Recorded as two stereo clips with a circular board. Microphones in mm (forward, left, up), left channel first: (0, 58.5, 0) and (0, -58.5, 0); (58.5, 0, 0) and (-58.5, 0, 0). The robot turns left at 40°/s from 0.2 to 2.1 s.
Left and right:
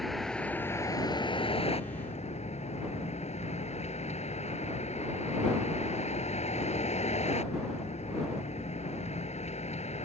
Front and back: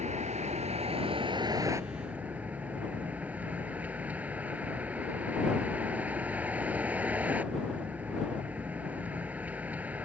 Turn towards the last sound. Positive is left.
turn(degrees=105)